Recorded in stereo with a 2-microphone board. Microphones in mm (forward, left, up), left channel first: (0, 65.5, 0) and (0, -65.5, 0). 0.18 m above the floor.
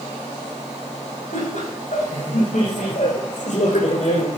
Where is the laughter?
80° left, 6.5 m; by 4.3 s 70° left (ahead or behind), 3.5 m.